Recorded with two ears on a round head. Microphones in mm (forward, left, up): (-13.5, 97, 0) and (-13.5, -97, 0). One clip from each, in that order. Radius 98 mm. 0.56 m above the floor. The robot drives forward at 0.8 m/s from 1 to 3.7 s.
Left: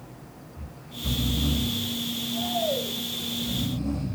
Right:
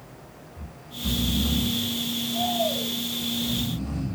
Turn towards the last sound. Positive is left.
turn(degrees=-15)  # may be behind; listen again after turning